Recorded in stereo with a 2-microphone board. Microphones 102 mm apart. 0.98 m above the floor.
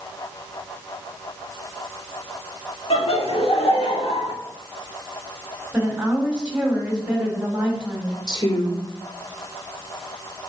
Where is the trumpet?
No trumpet in this recording.